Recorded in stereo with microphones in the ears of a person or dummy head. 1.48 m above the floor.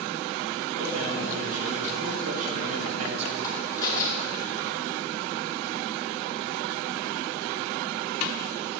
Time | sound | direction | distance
0.7 | a man speaking | 40° right (ahead or behind) | 2.5 m
3.4 | a crack | 30° left (ahead or behind) | 2.5 m